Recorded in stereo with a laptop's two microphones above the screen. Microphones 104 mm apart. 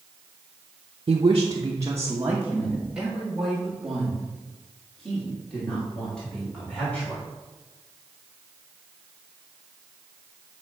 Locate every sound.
1.1 s a woman speaking: 55° right (ahead or behind), 0.7 m; by 7.2 s 10° left (ahead or behind), 3.5 m